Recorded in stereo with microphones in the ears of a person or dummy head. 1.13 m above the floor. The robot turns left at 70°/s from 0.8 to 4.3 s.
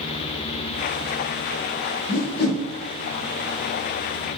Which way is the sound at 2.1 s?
35° left (ahead or behind).